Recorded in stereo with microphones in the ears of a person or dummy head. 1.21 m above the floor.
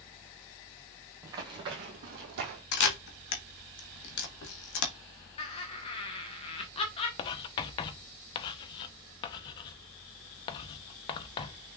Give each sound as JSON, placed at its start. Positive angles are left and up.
{"t": 1.2, "sound": "running footsteps", "side_deg": -20, "distance_m": 1.8}
{"t": 2.7, "sound": "a camera shutter", "side_deg": 60, "distance_m": 1.3}
{"t": 5.4, "sound": "laughter", "side_deg": 30, "distance_m": 1.0}
{"t": 7.2, "sound": "writing", "side_deg": 25, "distance_m": 0.6}